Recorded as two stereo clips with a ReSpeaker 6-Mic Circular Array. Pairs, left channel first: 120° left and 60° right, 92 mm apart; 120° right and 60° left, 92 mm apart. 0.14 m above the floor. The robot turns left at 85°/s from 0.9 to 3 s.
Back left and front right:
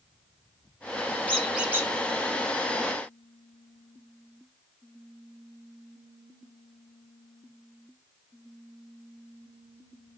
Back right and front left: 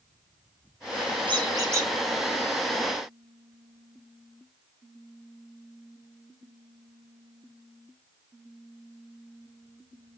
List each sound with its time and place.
1.3 s a squeak: 45° left, 1.6 m; by 1.9 s 5° right, 1.6 m